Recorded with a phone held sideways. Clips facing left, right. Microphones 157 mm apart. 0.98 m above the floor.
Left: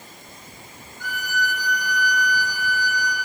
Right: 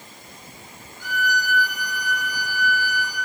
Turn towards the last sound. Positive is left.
turn(degrees=45)  # may be behind; listen again after turning